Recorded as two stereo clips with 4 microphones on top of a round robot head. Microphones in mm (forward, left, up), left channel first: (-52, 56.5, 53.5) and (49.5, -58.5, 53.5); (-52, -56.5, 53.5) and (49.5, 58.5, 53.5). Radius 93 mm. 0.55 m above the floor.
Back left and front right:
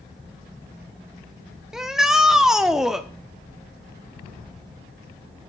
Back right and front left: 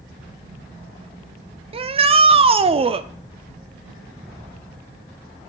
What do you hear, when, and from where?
1.7 s a shout: 35° left, 1.1 m